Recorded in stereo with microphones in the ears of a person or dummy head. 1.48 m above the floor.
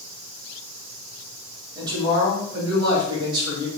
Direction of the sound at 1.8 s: 25° right (ahead or behind).